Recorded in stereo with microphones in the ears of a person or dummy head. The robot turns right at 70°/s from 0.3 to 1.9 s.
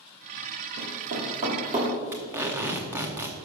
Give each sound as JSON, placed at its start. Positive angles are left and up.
{"t": 0.8, "sound": "running footsteps", "side_deg": -55, "distance_m": 2.5}
{"t": 2.1, "sound": "tape being pulled", "side_deg": -15, "distance_m": 0.9}